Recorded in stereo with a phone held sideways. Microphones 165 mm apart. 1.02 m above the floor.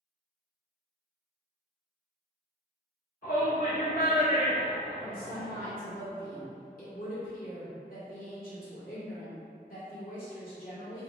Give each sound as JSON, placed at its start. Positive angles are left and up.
{"t": 3.2, "sound": "a shout", "side_deg": 55, "distance_m": 1.3}
{"t": 5.0, "sound": "a woman speaking", "side_deg": 60, "distance_m": 2.0}